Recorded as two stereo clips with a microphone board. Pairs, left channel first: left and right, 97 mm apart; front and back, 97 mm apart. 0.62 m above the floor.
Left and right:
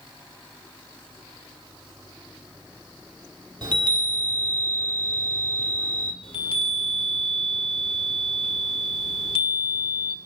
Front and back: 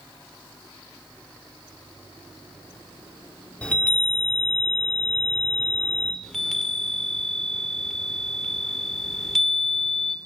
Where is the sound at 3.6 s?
75° right, 1.8 m.